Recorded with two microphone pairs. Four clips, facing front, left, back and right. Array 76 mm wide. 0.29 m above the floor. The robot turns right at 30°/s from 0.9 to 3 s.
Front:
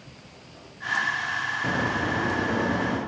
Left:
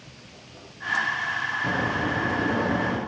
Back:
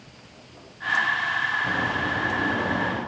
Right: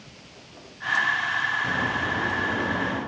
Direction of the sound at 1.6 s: 25° left.